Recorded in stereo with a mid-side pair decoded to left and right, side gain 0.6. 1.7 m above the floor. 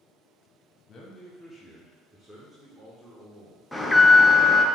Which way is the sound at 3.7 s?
5° left.